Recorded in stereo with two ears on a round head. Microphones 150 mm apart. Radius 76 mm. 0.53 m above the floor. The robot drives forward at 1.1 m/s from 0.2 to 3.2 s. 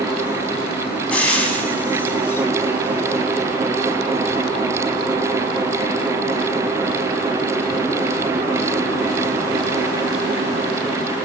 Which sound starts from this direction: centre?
Frying, at 1.1 s.